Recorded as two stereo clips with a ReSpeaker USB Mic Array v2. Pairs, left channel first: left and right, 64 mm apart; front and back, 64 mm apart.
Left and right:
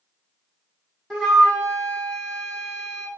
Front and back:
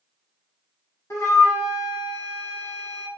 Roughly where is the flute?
Ahead.